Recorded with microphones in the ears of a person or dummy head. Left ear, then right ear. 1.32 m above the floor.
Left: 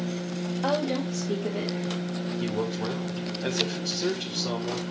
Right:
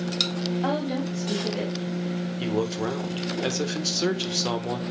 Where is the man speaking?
70° right (ahead or behind), 1.6 m.